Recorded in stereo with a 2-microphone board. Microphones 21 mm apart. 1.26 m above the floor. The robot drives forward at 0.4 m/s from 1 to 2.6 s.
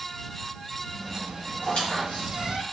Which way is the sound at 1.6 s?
75° left (ahead or behind).